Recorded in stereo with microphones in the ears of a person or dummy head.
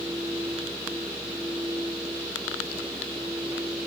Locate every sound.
0.0 s a fan: 10° right (ahead or behind)